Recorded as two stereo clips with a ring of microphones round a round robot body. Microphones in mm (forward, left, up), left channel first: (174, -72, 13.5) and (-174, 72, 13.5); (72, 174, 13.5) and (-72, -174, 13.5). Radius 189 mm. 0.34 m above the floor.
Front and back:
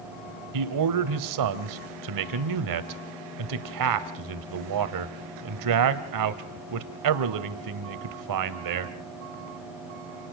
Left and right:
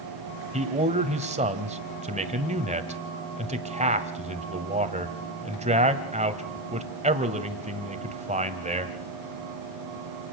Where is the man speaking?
Straight behind, 1.6 m.